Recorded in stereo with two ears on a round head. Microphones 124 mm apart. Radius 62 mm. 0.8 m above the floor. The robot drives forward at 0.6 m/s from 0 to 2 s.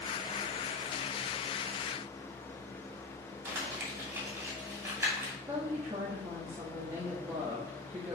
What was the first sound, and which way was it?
Crumpling, 15° right (ahead or behind).